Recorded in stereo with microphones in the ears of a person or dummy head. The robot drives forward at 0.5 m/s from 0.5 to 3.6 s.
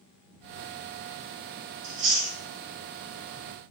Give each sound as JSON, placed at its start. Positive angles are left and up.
{"t": 1.8, "sound": "chewing", "side_deg": -35, "distance_m": 1.8}